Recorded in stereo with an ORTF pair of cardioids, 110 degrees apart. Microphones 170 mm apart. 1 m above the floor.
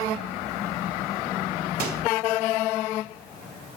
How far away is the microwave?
About 1.5 m.